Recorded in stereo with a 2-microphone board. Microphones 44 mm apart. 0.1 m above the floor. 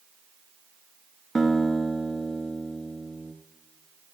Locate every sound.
1.4 s a guitar: 5° right (ahead or behind), 1.1 m